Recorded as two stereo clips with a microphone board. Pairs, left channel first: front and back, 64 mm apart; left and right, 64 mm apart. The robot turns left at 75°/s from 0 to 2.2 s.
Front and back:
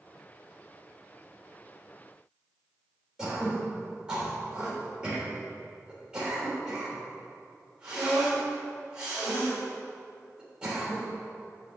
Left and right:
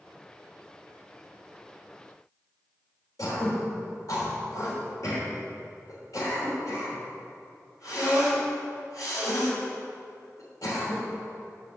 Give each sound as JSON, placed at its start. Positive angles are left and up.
{"t": 3.2, "sound": "throat clearing", "azimuth_deg": 105, "distance_m": 3.0}